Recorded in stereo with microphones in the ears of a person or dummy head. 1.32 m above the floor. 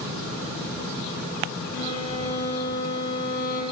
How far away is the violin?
About 3 m.